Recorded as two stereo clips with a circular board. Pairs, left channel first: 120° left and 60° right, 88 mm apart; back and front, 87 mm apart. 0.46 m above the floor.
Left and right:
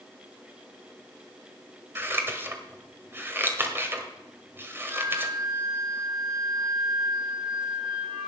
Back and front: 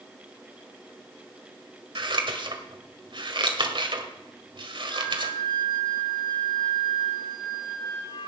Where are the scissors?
Straight ahead, 1.8 m.